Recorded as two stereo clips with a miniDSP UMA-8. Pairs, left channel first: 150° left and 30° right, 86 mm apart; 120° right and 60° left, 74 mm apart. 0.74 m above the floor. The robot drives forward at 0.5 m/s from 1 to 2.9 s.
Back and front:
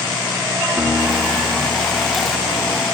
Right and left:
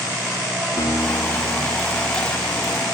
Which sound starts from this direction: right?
A guitar, at 0.8 s.